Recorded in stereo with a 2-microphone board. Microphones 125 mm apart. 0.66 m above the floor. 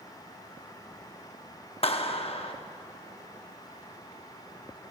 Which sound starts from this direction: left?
A clap, at 1.8 s.